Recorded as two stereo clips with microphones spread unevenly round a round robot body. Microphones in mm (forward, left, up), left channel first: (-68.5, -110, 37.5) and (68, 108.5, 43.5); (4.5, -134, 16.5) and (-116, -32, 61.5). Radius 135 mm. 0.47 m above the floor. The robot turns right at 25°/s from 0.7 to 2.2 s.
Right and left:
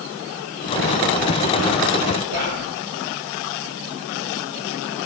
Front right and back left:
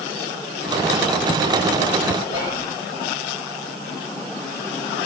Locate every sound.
2.3 s whispering: 10° left, 6.5 m